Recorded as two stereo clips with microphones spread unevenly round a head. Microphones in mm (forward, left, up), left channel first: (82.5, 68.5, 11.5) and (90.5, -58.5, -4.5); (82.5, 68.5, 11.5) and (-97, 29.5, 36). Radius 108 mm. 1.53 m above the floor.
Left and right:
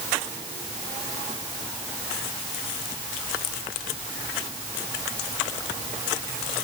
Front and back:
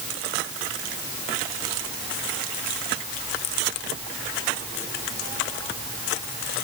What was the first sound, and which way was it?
Only background noise.